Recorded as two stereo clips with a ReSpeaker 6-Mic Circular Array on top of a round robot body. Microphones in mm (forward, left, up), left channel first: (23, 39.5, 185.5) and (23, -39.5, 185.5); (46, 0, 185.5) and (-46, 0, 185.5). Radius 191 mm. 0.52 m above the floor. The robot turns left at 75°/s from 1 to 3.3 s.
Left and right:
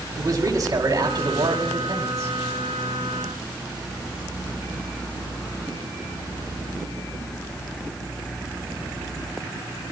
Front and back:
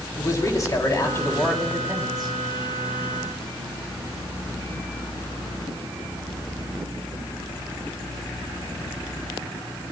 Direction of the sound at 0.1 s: 50° right.